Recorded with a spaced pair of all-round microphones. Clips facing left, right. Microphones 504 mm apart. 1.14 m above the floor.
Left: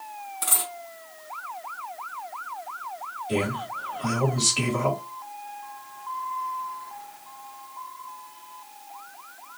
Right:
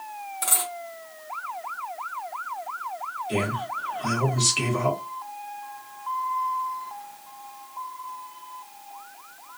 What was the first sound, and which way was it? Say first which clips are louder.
A dropped coin: right 2 dB; 30° left (ahead or behind).